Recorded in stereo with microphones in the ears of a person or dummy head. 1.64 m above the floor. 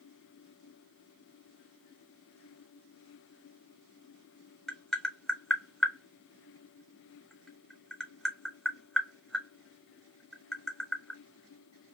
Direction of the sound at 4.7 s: Centre (ahead or behind).